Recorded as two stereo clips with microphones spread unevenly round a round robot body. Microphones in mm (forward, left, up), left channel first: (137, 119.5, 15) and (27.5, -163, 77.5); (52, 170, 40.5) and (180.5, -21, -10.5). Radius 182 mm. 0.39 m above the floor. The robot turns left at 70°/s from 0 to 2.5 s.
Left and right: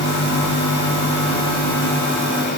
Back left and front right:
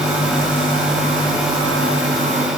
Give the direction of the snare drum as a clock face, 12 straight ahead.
I don't hear a snare drum.